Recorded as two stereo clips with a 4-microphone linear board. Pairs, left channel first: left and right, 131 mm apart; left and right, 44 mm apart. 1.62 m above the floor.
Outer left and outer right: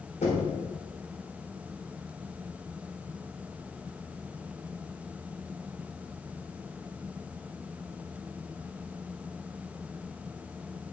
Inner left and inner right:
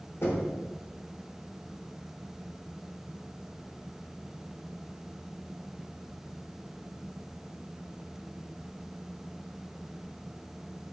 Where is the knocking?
65° left (ahead or behind), 4 m.